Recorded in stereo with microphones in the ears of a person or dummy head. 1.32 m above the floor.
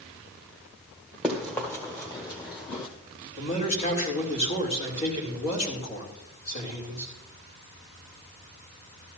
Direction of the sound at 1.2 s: Centre (ahead or behind).